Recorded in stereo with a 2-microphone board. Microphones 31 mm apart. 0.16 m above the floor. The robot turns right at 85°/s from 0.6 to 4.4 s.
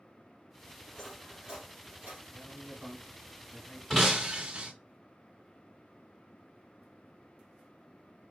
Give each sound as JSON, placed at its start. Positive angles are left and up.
{"t": 0.9, "sound": "cutlery clinking", "side_deg": 30, "distance_m": 3.0}
{"t": 2.3, "sound": "a man speaking", "azimuth_deg": -90, "distance_m": 1.8}
{"t": 3.9, "sound": "breaking glass", "azimuth_deg": 170, "distance_m": 1.1}